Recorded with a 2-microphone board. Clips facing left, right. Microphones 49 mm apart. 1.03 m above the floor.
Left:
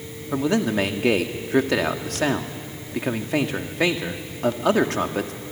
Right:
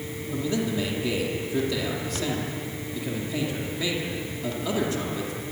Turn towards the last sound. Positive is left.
turn(degrees=70)  # may be behind; listen again after turning